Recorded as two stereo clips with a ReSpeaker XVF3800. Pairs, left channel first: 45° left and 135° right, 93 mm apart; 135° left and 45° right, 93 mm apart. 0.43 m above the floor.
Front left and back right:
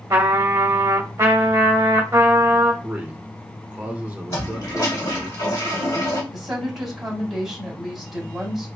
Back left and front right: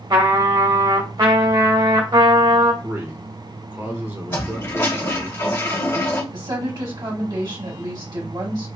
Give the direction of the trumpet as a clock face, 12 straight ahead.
3 o'clock.